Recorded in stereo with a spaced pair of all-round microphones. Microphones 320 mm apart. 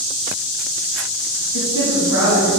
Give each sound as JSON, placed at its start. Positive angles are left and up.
{"t": 1.5, "sound": "a woman speaking", "side_deg": 80, "distance_m": 2.5}